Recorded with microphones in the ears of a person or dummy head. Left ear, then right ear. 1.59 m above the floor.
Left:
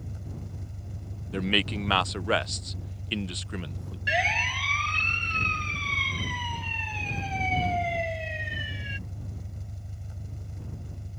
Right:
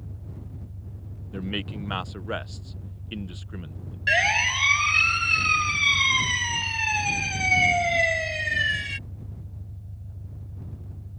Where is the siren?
25° right (ahead or behind); by 9.0 s 60° right (ahead or behind).